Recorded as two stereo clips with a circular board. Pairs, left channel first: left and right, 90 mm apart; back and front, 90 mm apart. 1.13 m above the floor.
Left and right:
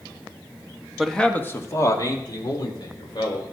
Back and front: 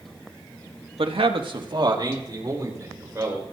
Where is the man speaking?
5° right, 1.2 m; by 3.4 s 60° left, 4 m.